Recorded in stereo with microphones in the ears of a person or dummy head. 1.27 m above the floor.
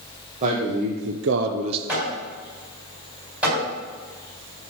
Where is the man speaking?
40° right (ahead or behind), 1.4 m; by 1.8 s 30° right (ahead or behind), 0.8 m.